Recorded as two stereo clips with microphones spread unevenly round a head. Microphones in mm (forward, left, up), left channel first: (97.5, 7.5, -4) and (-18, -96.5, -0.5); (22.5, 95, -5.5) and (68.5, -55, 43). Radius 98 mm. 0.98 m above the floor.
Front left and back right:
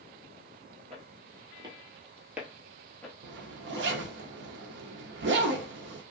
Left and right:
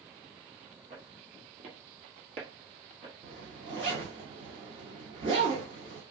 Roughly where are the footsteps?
Right.